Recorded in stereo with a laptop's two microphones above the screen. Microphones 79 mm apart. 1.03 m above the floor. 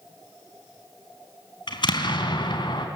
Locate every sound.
1.7 s an explosion: 75° left (ahead or behind), 3.5 m